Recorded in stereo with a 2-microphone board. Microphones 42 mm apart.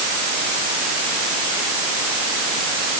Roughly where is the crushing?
I don't hear crushing.